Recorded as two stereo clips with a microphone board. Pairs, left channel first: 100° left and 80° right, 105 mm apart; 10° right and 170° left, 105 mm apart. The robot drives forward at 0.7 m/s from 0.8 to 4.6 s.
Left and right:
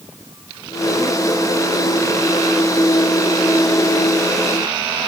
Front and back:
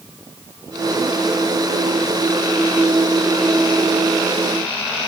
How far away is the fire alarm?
No fire alarm in this recording.